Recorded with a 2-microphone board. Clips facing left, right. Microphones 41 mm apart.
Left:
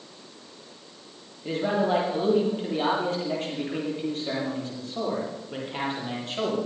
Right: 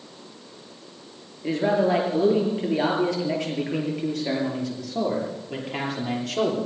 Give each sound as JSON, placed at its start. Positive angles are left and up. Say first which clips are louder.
{"t": 1.4, "sound": "a man speaking", "louder": "right 3 dB", "side_deg": -80, "distance_m": 7.0}